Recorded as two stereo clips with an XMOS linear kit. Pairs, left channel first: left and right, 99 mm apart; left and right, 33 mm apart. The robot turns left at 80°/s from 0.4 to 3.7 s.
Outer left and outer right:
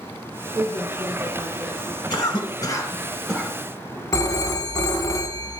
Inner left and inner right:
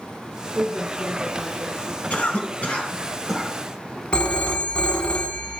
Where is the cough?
40° left (ahead or behind), 1.3 m; by 3.5 s 5° right (ahead or behind), 1.3 m.